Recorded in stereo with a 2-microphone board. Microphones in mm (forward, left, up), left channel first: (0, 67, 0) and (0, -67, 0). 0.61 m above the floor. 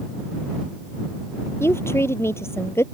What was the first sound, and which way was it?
A woman speaking, 20° left (ahead or behind).